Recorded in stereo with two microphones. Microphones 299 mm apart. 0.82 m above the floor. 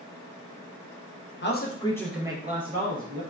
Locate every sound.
1.4 s a man speaking: 40° left (ahead or behind), 0.6 m; by 3.2 s 50° right (ahead or behind), 0.8 m